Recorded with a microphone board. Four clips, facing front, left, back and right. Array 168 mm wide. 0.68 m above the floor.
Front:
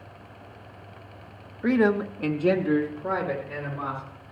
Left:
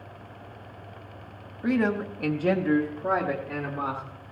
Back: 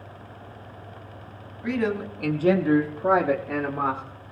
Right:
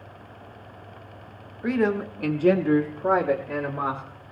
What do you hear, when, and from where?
1.6 s a man speaking: straight ahead, 1.3 m; by 4.0 s straight behind, 2.5 m